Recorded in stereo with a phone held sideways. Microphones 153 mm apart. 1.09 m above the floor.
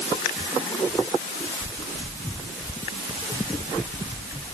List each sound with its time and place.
Only background noise.